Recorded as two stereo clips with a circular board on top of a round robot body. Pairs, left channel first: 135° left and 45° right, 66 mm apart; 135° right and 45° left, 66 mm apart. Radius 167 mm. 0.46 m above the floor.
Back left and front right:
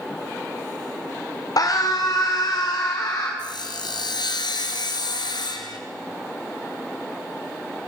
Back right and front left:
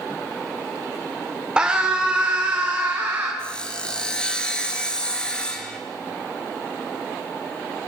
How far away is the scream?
About 2.5 m.